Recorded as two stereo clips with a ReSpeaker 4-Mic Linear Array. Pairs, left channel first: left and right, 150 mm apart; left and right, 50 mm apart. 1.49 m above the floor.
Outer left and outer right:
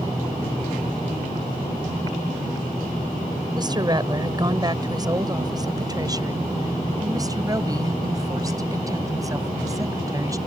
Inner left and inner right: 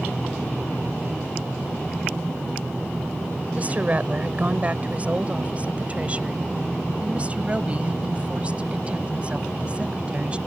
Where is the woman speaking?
30° right (ahead or behind); by 10.4 s 20° right (ahead or behind).